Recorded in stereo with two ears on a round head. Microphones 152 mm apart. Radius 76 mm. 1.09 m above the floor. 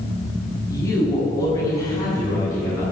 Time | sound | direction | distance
0.7 | a woman speaking | 20° left (ahead or behind) | 6 m